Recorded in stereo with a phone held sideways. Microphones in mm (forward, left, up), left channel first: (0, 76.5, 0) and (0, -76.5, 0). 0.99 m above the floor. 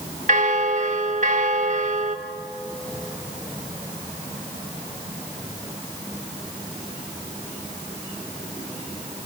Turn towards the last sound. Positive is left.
turn(degrees=-55)  # may be behind; listen again after turning